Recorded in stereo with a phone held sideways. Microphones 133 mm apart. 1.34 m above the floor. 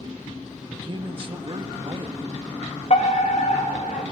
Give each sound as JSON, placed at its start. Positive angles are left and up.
{"t": 0.7, "sound": "a man speaking", "side_deg": -40, "distance_m": 1.7}
{"t": 2.9, "sound": "a fire alarm", "side_deg": 60, "distance_m": 3.5}